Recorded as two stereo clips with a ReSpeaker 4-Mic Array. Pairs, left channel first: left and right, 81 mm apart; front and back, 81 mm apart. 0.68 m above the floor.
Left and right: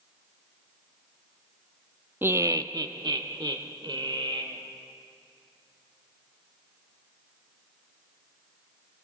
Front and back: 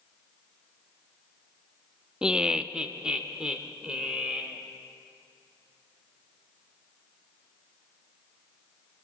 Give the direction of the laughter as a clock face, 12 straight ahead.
4 o'clock.